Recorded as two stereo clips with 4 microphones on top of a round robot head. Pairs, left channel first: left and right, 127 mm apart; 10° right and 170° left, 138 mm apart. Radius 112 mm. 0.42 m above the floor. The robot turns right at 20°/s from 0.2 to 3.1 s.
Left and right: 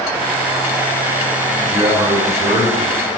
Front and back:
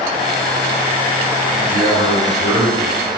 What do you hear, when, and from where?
1.6 s a man speaking: 140° right, 4.5 m; by 3.0 s 110° right, 4.5 m